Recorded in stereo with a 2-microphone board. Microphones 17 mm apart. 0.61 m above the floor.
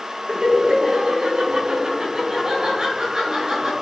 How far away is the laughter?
About 8 m.